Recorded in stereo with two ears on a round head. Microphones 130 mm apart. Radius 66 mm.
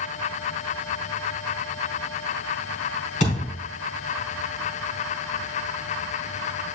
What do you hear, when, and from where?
3.2 s a thud: 55° left (ahead or behind), 4.5 m